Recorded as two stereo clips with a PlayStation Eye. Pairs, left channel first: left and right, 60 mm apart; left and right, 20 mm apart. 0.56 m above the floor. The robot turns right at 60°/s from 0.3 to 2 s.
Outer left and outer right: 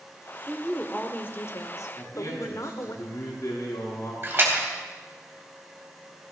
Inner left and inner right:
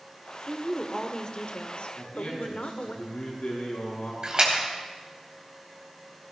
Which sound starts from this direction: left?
A man speaking, at 2.0 s.